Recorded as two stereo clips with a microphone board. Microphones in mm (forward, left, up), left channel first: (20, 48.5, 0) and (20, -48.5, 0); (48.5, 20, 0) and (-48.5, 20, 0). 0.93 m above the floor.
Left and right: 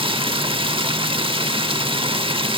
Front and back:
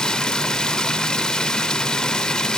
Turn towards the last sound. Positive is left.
turn(degrees=-80)